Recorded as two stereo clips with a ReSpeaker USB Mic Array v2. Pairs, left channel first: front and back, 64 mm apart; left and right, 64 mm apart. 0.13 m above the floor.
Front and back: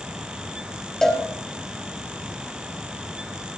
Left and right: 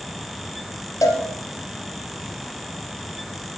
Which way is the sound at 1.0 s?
80° left.